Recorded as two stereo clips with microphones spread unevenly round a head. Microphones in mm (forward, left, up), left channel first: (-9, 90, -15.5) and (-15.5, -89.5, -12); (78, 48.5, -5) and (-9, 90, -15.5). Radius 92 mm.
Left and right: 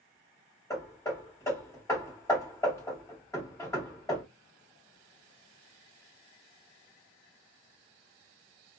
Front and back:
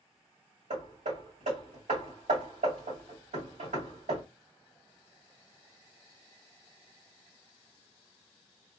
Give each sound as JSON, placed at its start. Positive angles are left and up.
{"t": 0.7, "sound": "hammering", "azimuth_deg": 160, "distance_m": 2.5}